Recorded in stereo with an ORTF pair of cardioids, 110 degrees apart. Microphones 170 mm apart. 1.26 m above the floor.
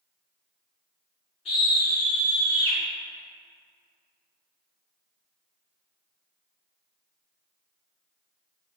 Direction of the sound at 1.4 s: 35° left.